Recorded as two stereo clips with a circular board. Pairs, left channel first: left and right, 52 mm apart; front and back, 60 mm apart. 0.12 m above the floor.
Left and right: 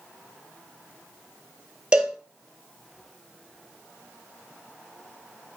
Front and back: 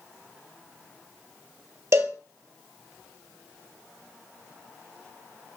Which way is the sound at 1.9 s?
160° right.